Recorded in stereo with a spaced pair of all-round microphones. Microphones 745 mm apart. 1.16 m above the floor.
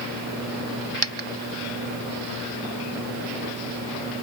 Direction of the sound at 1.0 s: 35° right (ahead or behind).